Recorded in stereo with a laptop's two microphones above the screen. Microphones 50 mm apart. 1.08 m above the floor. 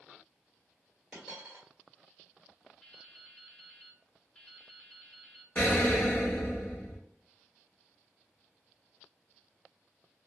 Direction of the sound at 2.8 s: 15° left (ahead or behind).